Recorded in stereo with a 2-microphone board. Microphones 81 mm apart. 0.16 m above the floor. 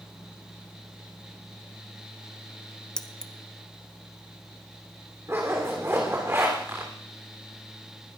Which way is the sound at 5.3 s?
35° right (ahead or behind).